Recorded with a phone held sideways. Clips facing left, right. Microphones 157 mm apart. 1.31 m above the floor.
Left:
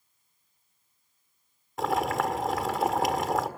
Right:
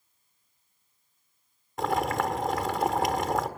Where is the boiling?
Centre (ahead or behind), 1.5 m.